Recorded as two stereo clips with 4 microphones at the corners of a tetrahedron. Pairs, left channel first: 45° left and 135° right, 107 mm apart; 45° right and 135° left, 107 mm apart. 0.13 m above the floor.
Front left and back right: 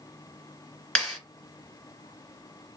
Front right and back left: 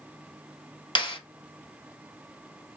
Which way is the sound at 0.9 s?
35° right.